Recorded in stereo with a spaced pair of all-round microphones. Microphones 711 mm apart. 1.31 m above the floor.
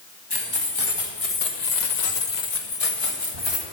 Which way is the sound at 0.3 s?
30° left (ahead or behind).